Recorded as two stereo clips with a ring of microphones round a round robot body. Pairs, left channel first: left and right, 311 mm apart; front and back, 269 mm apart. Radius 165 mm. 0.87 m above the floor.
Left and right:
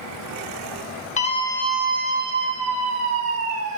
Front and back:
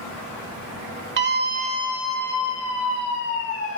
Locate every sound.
1.2 s a scream: 150° left, 1.3 m; by 3.8 s 50° right, 2.5 m